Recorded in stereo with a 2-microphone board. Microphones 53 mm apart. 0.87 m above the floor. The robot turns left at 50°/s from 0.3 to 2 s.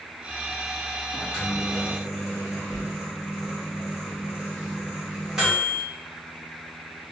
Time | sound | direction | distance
1.1 | a microwave | 35° left | 1.1 m